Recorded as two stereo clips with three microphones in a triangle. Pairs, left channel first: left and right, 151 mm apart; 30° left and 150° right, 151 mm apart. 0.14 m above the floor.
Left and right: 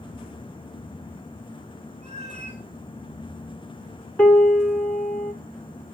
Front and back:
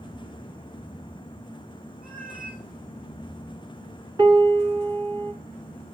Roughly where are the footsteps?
No footsteps in this recording.